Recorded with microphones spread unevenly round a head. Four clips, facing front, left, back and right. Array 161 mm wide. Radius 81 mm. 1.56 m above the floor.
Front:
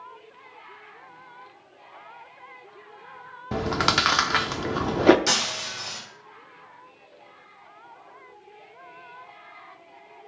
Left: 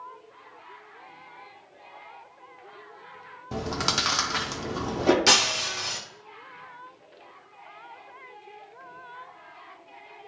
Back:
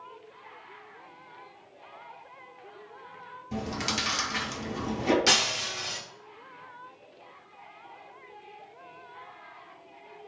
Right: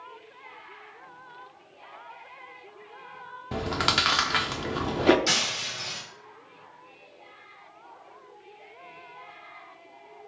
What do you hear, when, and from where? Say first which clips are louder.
3.5 s chewing: right 2 dB, front 9 dB; 5° right, 0.7 m
5.3 s breaking glass: left 6 dB, even; 90° left, 1.9 m